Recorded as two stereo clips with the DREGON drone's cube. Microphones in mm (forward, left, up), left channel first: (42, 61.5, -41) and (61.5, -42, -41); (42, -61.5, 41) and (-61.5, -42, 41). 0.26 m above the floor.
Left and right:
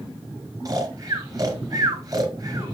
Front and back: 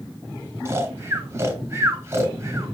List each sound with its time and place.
0.7 s snoring: 130° right, 2.5 m